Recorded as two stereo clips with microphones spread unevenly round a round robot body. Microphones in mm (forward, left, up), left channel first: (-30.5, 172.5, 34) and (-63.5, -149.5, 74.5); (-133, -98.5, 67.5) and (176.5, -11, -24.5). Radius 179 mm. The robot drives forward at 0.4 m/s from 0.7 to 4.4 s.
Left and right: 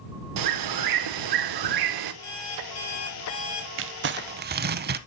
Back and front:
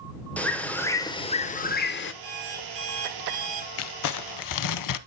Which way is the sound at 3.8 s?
140° right.